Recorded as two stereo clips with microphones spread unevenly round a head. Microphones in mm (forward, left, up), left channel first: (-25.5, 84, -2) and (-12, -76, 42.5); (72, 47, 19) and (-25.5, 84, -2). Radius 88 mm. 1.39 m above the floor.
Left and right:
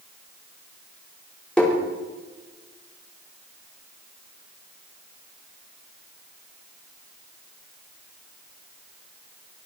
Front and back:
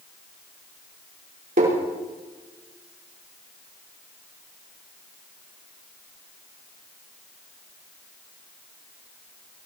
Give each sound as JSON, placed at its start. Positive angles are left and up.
{"t": 1.6, "sound": "tapping", "azimuth_deg": 180, "distance_m": 5.5}